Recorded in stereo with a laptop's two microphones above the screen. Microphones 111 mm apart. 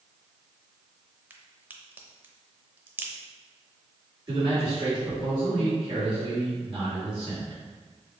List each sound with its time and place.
1.3 s a crack: 15° right (ahead or behind), 0.6 m
4.3 s a man speaking: 40° right (ahead or behind), 1.7 m